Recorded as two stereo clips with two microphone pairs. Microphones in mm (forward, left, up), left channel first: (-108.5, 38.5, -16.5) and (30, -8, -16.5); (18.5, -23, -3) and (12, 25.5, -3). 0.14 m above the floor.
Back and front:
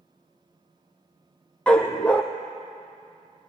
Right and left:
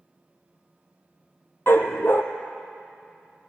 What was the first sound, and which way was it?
A dog barking, 115° right.